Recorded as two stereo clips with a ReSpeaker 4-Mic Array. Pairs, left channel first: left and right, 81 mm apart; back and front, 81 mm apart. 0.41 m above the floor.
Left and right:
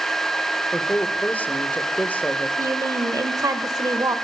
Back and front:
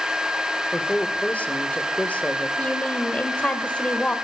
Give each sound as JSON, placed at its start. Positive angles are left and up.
{"t": 0.7, "sound": "a man speaking", "azimuth_deg": 135, "distance_m": 1.3}
{"t": 2.6, "sound": "a woman speaking", "azimuth_deg": -110, "distance_m": 1.2}